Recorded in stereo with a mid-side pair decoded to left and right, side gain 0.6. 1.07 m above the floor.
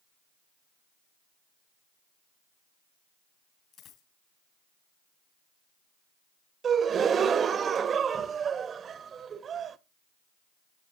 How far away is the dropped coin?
About 3.5 m.